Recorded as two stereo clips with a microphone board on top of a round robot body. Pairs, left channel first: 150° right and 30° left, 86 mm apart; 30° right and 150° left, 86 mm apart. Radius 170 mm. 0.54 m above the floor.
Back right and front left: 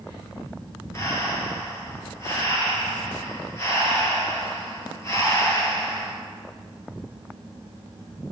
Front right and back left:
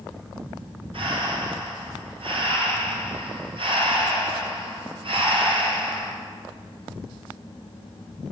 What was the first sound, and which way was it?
Breathing, 155° left.